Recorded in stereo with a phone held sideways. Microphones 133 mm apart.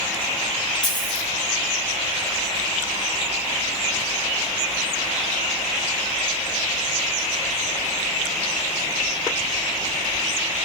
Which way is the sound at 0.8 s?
35° left (ahead or behind).